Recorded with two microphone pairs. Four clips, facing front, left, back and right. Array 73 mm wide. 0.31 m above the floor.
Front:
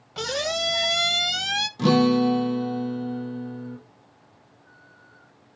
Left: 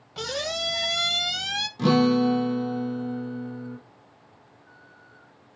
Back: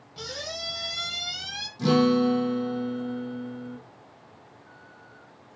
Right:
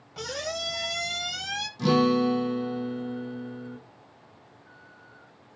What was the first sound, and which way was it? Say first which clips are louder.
A squeak: left 3 dB, front 10 dB; 5° left.